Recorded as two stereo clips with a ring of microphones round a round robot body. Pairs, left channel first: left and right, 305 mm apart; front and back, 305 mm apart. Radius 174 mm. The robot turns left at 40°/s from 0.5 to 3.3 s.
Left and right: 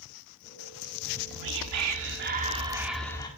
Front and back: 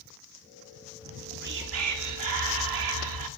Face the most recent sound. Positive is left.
turn(degrees=165)